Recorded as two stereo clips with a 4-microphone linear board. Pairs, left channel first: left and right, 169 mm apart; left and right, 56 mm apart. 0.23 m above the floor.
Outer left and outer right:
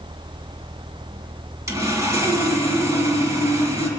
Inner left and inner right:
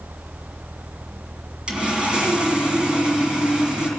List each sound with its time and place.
1.7 s sawing: 15° right (ahead or behind), 2 m